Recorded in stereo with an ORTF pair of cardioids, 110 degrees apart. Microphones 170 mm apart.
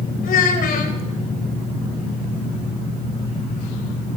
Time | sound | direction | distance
0.2 | a child speaking | 55° left | 3.5 m